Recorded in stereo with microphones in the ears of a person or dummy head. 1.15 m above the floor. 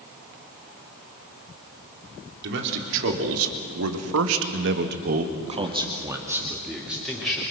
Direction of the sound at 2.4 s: 60° right (ahead or behind).